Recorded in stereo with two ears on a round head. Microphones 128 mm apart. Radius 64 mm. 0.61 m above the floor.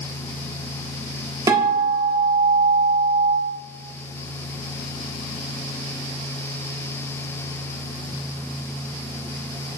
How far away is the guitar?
About 1.5 m.